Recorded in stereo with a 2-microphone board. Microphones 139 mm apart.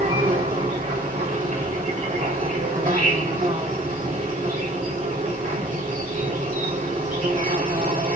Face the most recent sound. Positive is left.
turn(degrees=-70)  # may be behind; listen again after turning